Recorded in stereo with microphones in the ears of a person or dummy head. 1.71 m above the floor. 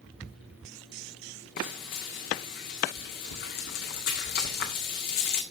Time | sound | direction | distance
1.6 | frying | 50° left (ahead or behind) | 1.8 m